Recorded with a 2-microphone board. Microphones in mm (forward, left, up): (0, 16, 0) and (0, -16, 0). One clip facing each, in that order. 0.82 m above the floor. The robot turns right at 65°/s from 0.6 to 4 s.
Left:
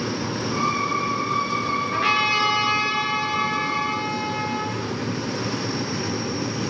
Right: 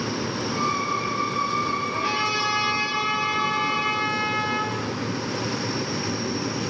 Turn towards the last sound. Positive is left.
turn(degrees=-155)